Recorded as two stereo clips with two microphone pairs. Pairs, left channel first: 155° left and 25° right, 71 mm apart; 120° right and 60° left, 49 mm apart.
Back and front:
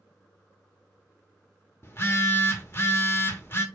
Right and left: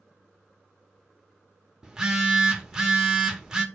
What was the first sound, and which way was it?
A phone buzzing, 130° left.